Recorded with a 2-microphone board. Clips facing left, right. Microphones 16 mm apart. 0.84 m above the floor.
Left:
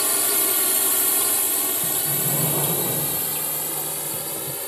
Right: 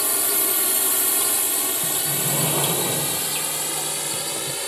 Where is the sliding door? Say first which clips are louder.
Right 2 dB; 35° right (ahead or behind).